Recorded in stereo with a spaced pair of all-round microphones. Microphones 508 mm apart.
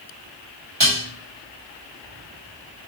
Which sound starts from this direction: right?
Dishes clattering, at 0.8 s.